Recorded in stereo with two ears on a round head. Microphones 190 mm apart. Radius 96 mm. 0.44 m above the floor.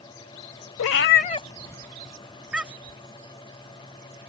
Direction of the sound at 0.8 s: 75° left (ahead or behind).